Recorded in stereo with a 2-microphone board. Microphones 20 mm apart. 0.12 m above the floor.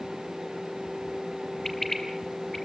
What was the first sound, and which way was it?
A bird, 15° left (ahead or behind).